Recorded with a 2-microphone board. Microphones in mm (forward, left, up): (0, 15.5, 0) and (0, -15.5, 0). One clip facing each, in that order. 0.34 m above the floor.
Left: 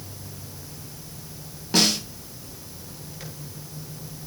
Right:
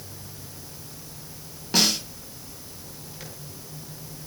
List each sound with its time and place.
1.7 s a snare drum: centre (ahead or behind), 2 m